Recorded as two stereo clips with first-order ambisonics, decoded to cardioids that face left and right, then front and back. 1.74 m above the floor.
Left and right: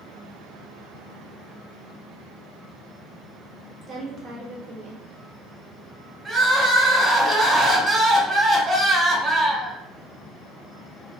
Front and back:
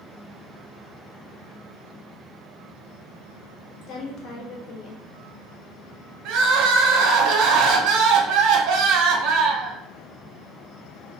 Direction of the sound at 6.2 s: 165° right.